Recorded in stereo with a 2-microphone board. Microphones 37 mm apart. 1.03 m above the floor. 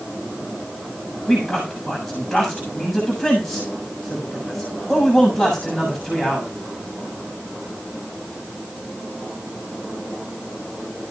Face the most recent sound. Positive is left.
turn(degrees=5)  # may be behind; listen again after turning